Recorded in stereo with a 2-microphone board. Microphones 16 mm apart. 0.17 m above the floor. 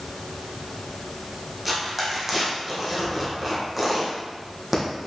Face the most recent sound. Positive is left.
turn(degrees=-10)  # may be behind; listen again after turning